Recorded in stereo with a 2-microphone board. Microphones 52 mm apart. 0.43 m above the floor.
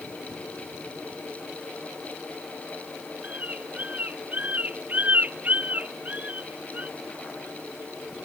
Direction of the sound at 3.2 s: 30° right (ahead or behind).